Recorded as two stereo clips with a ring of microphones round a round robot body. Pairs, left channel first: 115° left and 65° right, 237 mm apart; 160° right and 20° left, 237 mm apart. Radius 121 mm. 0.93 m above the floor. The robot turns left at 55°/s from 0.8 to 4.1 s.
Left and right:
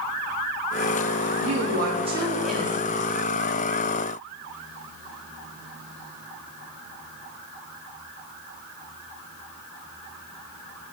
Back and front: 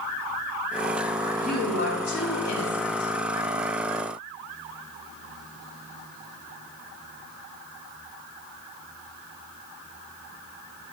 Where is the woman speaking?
100° right, 1.3 m; by 3.1 s 165° left, 1.3 m.